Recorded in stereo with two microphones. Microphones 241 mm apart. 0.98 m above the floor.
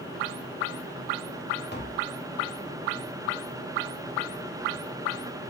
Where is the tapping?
45° left (ahead or behind), 1.0 m.